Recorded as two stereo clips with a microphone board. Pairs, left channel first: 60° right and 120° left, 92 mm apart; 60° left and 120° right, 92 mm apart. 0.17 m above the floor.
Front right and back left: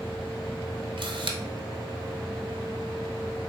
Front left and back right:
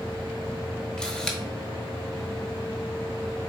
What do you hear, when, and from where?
1.0 s a camera shutter: 140° left, 0.7 m